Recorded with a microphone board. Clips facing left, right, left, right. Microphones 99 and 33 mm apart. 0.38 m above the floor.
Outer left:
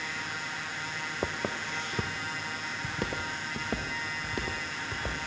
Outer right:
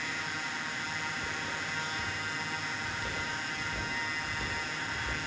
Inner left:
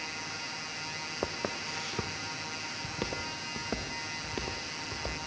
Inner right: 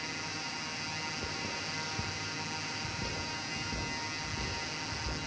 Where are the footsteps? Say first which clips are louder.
Outer left 4 dB, inner left 3 dB; 70° left (ahead or behind), 1.0 m; by 5.2 s 80° left, 3.5 m.